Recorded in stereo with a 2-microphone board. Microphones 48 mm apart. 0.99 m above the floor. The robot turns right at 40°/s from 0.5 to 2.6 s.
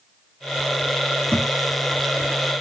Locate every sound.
1.3 s a thud: 15° left (ahead or behind), 6 m; by 1.5 s 20° left (ahead or behind), 6 m